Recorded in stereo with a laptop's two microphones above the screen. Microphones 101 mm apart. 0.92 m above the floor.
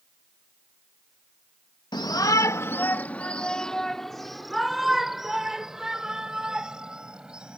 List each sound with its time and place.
1.9 s a shout: 45° left (ahead or behind); by 7.6 s 10° right (ahead or behind)